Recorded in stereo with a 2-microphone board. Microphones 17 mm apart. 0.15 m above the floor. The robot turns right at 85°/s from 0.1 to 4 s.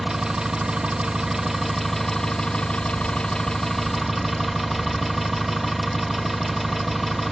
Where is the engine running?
145° right, 1.6 m; by 7.3 s 175° right, 1.6 m.